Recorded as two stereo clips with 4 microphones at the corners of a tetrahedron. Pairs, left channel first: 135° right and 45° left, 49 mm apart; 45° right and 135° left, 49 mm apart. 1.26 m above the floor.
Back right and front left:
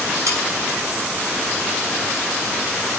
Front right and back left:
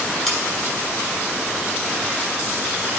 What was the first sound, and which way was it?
Sawing, 45° left.